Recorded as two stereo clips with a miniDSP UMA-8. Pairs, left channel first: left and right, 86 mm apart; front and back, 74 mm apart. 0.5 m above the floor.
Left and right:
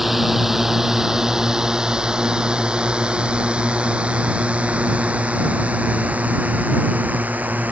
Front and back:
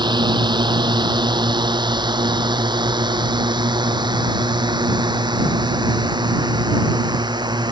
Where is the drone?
Straight behind; by 7.7 s 165° right.